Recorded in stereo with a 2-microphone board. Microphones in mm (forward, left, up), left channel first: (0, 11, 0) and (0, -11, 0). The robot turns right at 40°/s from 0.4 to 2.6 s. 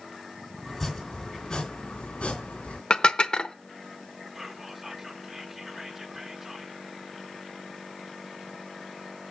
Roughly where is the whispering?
Right.